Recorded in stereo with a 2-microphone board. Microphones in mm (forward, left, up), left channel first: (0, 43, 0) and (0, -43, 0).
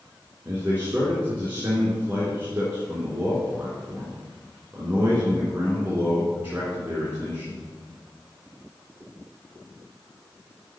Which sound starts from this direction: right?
A man speaking, at 0.5 s.